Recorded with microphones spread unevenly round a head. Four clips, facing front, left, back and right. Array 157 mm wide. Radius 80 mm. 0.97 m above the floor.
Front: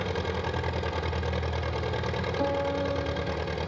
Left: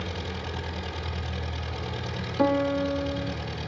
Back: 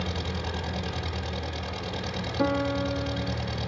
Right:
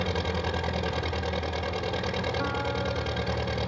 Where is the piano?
110° left, 1.5 m.